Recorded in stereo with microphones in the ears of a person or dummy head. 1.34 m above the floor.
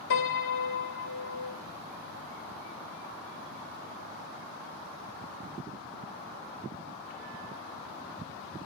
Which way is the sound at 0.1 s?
65° left (ahead or behind).